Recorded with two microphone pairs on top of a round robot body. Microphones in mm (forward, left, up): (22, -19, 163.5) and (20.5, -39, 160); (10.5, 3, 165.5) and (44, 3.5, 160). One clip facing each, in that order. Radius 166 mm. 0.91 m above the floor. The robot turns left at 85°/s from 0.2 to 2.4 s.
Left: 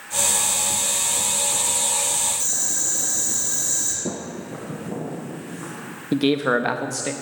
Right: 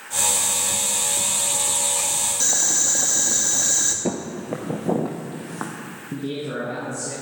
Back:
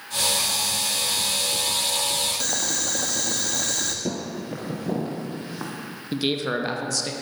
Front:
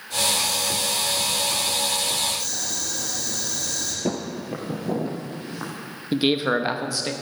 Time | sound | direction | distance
2.4 | boiling | 145° right | 1.3 m
4.0 | footsteps | 75° right | 0.9 m
6.1 | a man speaking | 70° left | 1.1 m